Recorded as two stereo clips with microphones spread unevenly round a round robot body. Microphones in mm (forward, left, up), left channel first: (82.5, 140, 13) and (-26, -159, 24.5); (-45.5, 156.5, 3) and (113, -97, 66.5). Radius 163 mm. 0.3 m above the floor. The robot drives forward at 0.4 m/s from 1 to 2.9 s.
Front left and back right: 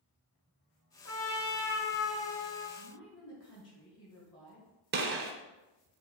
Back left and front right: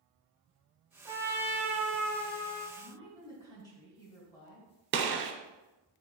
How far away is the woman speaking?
About 1.8 m.